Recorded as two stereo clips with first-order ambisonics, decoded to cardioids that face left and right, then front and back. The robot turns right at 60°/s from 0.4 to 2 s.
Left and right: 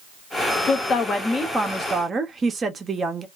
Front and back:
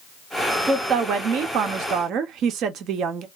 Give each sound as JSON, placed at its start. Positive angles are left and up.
{"t": 0.7, "sound": "a woman speaking", "azimuth_deg": 120, "distance_m": 0.6}